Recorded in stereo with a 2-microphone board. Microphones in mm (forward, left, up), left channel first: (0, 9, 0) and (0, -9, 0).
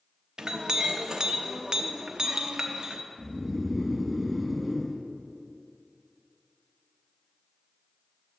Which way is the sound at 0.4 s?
40° right (ahead or behind).